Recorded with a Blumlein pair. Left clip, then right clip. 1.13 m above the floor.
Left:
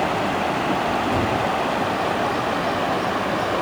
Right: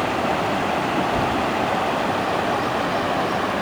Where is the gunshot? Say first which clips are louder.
Even; 60° left, 1.5 m.